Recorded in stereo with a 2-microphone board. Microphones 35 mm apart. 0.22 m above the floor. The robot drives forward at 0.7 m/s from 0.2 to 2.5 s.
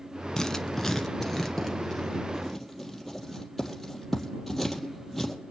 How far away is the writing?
About 0.6 m.